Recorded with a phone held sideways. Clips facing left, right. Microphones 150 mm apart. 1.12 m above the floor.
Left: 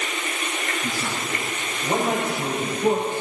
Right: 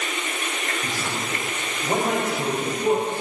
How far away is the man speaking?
About 6 m.